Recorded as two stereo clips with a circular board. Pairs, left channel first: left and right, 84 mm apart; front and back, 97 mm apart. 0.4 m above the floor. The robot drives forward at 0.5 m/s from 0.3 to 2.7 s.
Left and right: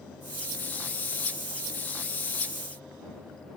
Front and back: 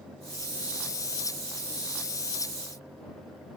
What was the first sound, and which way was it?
Only background noise.